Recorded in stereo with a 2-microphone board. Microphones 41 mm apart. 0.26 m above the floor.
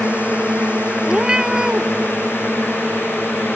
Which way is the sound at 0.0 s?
30° right (ahead or behind).